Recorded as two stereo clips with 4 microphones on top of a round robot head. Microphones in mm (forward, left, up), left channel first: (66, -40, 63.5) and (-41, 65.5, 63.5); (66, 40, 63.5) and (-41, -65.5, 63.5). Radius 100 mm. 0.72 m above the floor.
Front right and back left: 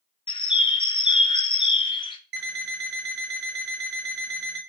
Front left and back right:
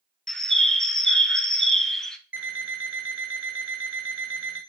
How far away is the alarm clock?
About 1.0 m.